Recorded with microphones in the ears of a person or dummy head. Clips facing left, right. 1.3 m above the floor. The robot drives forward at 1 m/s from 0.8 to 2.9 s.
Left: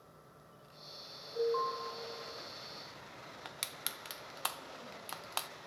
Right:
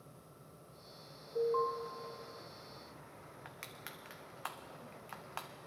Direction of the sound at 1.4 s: 40° right (ahead or behind).